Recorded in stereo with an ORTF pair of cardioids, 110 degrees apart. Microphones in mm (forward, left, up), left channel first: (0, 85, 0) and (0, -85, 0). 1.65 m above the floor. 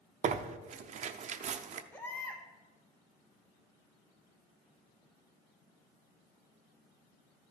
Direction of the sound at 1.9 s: 10° left.